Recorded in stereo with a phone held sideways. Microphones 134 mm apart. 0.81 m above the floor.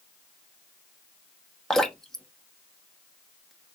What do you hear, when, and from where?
1.7 s dripping: 5° left (ahead or behind), 0.8 m